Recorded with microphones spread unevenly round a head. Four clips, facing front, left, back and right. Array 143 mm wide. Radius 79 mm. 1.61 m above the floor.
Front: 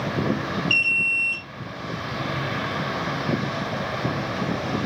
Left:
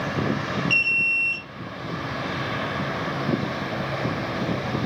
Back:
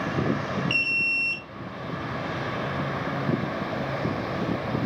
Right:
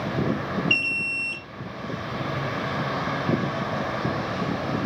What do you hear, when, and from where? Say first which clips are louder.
0.7 s an alarm: left 2 dB, front 3 dB; 145° right, 2 m